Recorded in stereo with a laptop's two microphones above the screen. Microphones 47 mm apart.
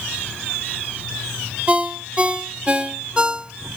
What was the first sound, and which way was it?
A ringtone, 25° right (ahead or behind).